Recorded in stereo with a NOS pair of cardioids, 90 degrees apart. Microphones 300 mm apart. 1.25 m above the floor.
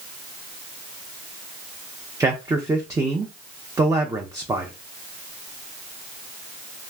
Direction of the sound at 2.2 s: 10° right.